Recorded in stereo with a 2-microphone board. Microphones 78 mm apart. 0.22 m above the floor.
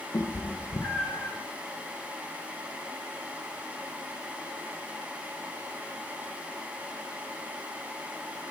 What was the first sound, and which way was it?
A cat meowing, 30° left (ahead or behind).